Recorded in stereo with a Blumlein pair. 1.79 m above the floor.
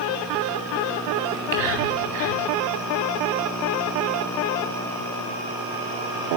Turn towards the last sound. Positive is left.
turn(degrees=-50)